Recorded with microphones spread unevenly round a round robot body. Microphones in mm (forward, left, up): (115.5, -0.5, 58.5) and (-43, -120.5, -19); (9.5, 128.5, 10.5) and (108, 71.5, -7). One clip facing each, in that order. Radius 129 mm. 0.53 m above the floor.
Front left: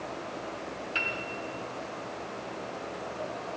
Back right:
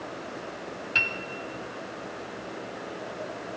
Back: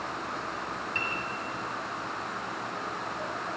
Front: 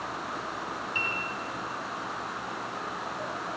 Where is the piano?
115° right, 1.8 m.